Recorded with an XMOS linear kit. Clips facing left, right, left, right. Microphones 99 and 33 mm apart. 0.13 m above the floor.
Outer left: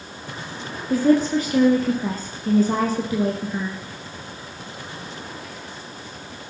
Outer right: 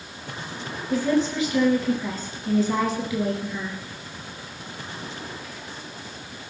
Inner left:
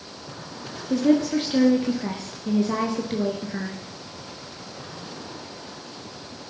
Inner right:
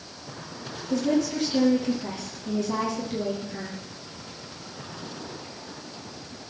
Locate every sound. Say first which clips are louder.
0.9 s a woman speaking: outer left 5 dB, inner left 4 dB; 40° left (ahead or behind), 1.9 m